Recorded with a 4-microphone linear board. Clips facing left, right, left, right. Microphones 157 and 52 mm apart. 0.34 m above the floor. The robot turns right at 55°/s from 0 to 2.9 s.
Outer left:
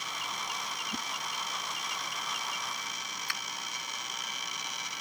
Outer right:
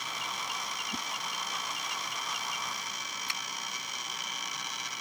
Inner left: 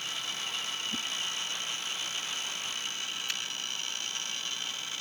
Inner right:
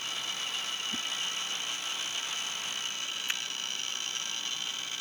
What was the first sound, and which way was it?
A whoosh, 10° left (ahead or behind).